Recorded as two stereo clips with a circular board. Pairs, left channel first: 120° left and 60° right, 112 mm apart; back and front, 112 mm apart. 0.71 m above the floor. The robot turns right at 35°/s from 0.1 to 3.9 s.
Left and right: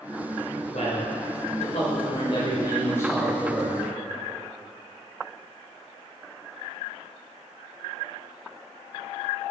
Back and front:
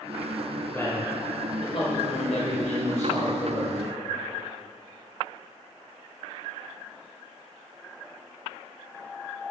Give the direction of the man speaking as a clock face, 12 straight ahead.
8 o'clock.